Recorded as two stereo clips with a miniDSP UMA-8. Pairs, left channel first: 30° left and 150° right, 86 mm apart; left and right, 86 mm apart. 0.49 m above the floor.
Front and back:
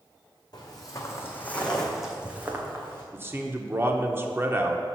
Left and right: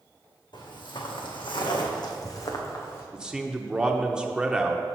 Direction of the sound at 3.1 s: 160° right.